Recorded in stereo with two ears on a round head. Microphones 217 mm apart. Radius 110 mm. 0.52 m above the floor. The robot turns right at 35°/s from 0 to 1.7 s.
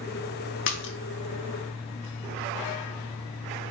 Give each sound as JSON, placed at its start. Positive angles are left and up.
{"t": 0.7, "sound": "a splash", "side_deg": 50, "distance_m": 0.5}